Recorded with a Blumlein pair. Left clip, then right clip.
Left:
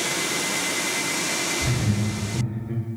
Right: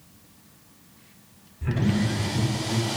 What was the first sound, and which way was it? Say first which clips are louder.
Laughter: left 1 dB; 10° left.